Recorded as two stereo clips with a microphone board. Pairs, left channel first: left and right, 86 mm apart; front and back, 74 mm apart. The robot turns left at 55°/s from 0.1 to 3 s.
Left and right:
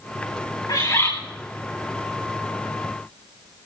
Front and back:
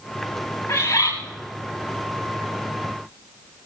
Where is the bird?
55° left, 7.5 m; by 1.1 s 35° left, 7.5 m.